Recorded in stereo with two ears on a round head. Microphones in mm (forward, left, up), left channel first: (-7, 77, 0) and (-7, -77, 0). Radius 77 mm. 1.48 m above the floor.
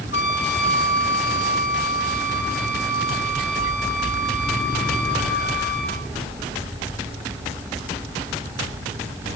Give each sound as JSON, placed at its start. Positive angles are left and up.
{"t": 0.1, "sound": "a trumpet", "side_deg": 70, "distance_m": 7.5}